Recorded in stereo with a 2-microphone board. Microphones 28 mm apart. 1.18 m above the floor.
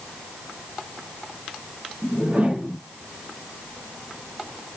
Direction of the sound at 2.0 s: 50° right (ahead or behind).